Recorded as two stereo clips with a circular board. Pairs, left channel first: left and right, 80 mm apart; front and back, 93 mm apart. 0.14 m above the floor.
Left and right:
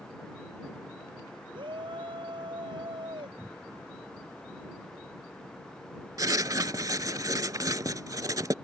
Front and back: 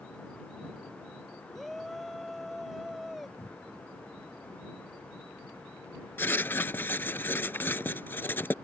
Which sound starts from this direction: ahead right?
Writing, at 6.2 s.